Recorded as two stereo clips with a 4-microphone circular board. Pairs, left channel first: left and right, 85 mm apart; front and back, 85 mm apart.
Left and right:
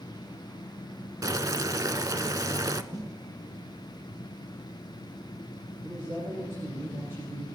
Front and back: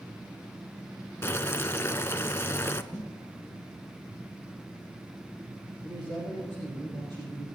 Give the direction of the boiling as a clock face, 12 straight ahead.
2 o'clock.